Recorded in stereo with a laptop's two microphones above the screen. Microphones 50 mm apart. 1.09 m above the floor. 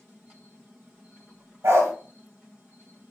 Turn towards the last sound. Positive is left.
turn(degrees=-75)  # may be behind; listen again after turning